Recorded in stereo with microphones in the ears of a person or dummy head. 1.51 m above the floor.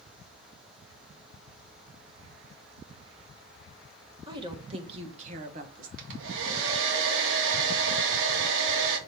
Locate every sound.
4.3 s a woman speaking: 30° right (ahead or behind), 2 m; by 5.9 s 55° right (ahead or behind), 1.8 m
6.0 s a hair dryer: 75° right (ahead or behind), 1.8 m